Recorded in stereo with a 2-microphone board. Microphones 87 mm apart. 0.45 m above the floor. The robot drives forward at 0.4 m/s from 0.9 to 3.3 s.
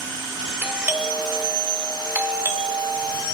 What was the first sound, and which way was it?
A doorbell, 25° right (ahead or behind).